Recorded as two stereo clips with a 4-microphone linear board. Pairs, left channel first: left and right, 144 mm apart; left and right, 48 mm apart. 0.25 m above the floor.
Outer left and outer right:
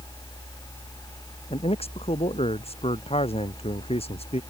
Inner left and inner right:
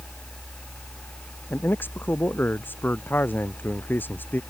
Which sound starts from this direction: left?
A man speaking, at 1.5 s.